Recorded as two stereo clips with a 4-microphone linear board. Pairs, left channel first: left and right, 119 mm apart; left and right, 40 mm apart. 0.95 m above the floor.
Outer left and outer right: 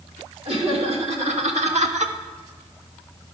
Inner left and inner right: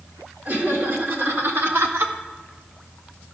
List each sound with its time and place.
0.5 s laughter: 60° right (ahead or behind), 2.5 m; by 2.1 s 70° right (ahead or behind), 1.0 m